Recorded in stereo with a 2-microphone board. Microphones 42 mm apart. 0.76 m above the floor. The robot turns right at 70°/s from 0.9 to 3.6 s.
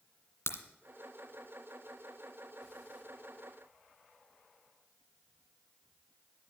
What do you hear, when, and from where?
0.5 s a crack: 75° left (ahead or behind), 2.0 m